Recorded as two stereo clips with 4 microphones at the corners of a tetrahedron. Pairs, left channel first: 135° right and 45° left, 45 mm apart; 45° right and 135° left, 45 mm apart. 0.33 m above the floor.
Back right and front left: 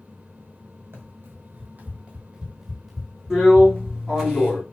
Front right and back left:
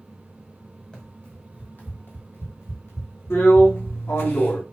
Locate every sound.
0.9 s running footsteps: 20° left, 1.3 m; by 4.0 s 75° right, 1.5 m
3.3 s a drill: 40° right, 1.5 m